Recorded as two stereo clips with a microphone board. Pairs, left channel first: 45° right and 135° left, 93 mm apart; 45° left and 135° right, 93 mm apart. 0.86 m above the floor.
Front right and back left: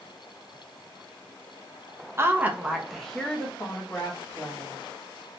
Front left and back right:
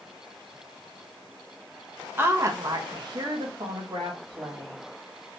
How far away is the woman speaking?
About 0.7 m.